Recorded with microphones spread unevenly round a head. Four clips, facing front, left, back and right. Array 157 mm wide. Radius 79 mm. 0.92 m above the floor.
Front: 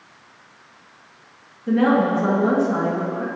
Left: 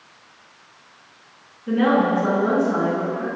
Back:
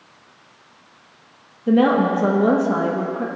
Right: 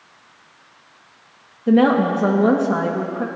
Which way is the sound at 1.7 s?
120° right.